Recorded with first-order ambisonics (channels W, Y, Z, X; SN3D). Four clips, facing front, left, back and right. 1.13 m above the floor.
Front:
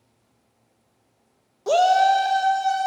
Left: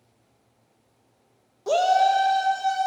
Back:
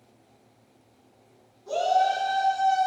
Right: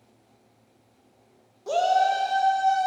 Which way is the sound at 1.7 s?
20° left.